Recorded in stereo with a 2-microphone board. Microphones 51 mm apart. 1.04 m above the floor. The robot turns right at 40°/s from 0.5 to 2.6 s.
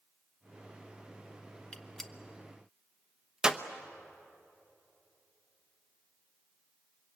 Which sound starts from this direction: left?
A gunshot, at 1.7 s.